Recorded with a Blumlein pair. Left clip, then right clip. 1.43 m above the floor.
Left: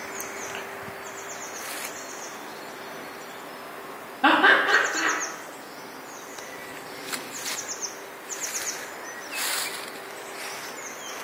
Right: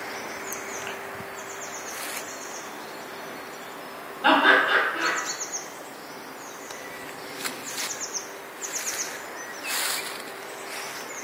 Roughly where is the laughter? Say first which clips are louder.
Even; ahead left.